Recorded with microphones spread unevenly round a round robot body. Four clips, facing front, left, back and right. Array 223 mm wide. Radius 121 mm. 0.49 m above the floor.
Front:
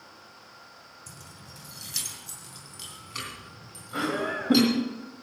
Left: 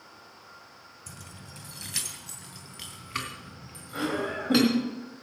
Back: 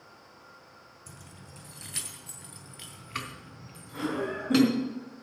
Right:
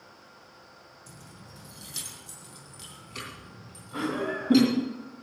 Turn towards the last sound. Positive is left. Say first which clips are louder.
# even, front 2 dB
turn(degrees=15)